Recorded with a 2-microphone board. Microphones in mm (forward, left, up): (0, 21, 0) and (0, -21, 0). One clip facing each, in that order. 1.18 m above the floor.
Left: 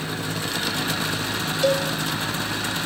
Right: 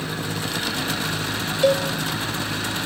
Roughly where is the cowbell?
Right.